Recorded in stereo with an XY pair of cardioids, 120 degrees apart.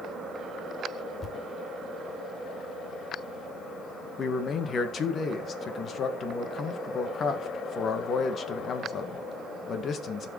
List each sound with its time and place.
1.2 s a thud: 25° left, 2 m
4.2 s a man speaking: 45° left, 1.7 m